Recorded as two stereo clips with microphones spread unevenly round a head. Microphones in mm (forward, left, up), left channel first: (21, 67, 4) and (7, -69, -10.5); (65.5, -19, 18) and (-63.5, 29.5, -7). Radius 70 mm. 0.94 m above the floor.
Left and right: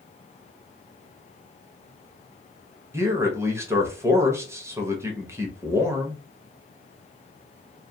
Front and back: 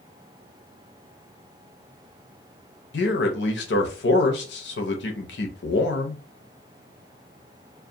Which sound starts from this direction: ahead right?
A man speaking, at 2.9 s.